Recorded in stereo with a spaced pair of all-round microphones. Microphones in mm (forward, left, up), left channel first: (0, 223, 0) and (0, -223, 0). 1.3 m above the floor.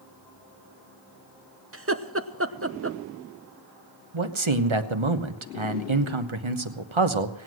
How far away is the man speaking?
About 1.1 m.